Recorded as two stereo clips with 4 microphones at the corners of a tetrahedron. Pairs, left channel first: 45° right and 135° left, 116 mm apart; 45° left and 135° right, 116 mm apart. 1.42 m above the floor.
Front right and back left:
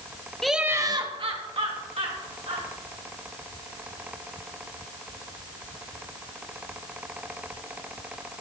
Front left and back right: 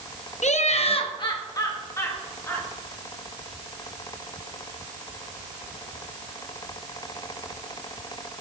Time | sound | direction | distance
0.4 | laughter | 40° left | 1.0 m